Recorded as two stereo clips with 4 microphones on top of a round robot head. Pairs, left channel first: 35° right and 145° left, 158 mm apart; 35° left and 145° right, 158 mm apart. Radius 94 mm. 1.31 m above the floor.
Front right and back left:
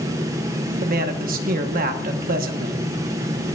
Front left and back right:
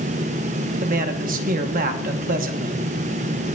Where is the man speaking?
Straight behind, 0.9 m.